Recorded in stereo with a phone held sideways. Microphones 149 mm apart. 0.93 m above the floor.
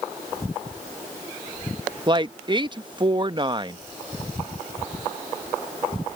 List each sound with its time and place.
2.1 s a woman speaking: 30° right (ahead or behind)